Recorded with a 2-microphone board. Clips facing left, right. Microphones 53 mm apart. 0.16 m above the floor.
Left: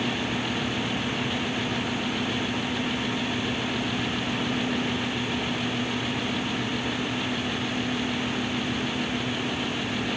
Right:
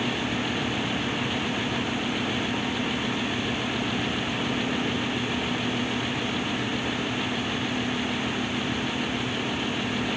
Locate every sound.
Only background noise.